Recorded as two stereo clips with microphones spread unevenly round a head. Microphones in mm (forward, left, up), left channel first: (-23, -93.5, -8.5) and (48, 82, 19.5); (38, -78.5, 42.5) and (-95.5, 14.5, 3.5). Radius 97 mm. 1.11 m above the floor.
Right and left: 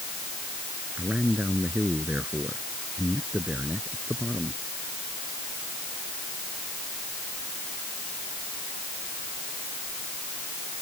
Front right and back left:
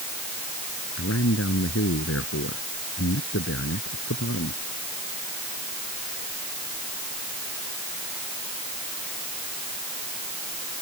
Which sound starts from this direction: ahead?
A man speaking, at 1.0 s.